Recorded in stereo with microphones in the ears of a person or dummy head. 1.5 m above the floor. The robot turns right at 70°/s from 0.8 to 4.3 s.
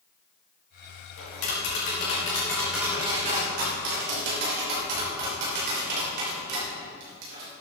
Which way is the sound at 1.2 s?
75° left (ahead or behind).